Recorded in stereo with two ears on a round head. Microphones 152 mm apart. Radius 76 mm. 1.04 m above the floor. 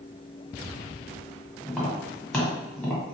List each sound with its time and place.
1.6 s tapping: 5° left (ahead or behind), 1.6 m